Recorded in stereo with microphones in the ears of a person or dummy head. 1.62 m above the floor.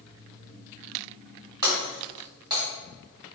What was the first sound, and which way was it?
Breaking glass, 25° right (ahead or behind).